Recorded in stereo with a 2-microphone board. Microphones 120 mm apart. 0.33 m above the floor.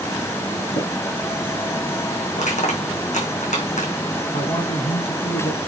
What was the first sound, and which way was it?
Tapping, 80° left.